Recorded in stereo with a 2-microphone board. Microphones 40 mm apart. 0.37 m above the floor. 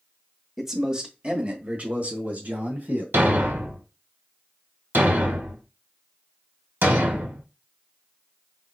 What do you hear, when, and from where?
0.6 s a man speaking: 10° right (ahead or behind), 1.0 m; by 3.0 s 60° right (ahead or behind), 2.5 m
3.1 s a thud: 75° right (ahead or behind), 1.1 m